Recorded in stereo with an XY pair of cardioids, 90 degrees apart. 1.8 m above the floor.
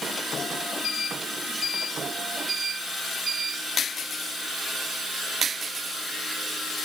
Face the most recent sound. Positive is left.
No sound to turn to.